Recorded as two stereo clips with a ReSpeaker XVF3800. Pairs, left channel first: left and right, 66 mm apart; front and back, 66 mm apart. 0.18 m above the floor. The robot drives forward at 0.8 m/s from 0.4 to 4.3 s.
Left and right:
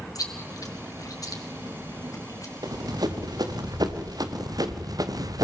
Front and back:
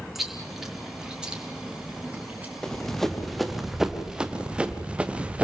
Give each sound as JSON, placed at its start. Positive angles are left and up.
{"t": 0.1, "sound": "chewing", "azimuth_deg": 95, "distance_m": 4.0}
{"t": 2.6, "sound": "running footsteps", "azimuth_deg": -80, "distance_m": 3.5}